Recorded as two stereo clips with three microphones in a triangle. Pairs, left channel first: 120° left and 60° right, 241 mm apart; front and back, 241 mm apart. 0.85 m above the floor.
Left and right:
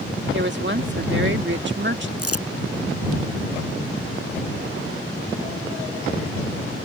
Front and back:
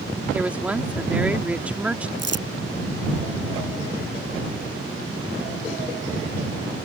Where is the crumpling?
135° left.